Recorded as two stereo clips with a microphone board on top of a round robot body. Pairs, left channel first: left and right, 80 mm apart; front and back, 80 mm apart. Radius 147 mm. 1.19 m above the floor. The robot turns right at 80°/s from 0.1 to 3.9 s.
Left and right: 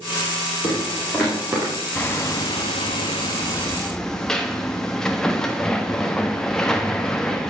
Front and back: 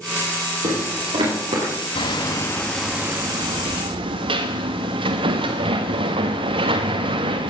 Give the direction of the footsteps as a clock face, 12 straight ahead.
8 o'clock.